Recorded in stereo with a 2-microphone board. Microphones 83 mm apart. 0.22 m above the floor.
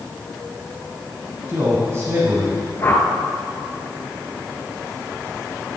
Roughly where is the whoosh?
Left.